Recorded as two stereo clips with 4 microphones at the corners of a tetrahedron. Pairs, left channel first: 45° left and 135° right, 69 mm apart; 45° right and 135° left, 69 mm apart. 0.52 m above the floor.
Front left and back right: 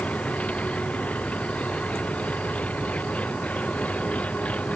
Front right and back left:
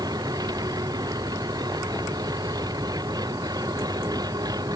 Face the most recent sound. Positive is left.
turn(degrees=115)